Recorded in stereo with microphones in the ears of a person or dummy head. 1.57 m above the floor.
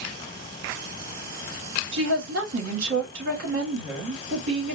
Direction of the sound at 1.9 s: 75° right (ahead or behind).